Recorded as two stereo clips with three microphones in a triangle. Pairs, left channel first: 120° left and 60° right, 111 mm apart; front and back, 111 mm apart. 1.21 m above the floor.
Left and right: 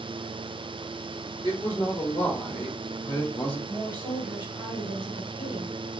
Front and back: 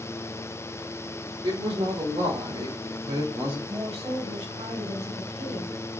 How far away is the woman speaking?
About 3 m.